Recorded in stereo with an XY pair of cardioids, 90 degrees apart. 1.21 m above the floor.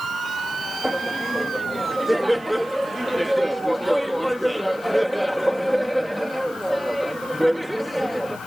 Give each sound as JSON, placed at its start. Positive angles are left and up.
{"t": 0.8, "sound": "laughter", "azimuth_deg": -10}